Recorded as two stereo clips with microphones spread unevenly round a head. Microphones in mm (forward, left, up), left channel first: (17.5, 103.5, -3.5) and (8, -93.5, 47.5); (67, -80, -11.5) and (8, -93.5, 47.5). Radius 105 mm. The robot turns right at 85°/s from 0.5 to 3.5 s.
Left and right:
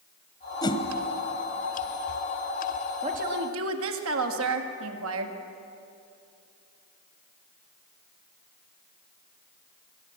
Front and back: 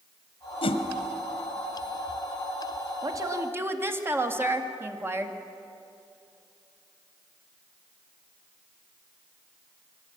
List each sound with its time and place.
0.6 s a whoosh: 5° left, 1.3 m; by 0.8 s 25° left, 1.3 m
3.0 s a woman speaking: 160° right, 2 m; by 5.4 s 115° right, 2 m